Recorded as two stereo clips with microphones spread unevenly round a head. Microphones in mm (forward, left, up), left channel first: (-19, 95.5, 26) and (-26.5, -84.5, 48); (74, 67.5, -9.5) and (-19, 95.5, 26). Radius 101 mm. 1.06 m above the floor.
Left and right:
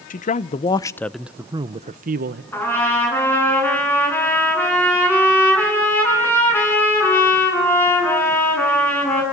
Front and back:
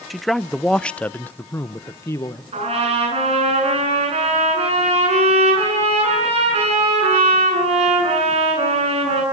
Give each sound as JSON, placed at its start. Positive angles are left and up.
{"t": 0.1, "sound": "a man speaking", "azimuth_deg": 60, "distance_m": 0.8}
{"t": 2.5, "sound": "a trumpet", "azimuth_deg": 165, "distance_m": 10.0}